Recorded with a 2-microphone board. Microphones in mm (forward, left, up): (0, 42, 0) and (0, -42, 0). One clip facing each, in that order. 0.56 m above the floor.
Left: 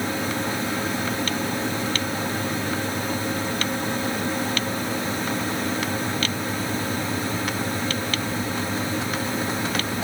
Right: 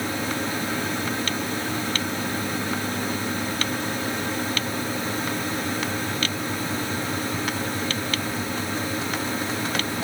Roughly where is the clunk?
I don't hear a clunk.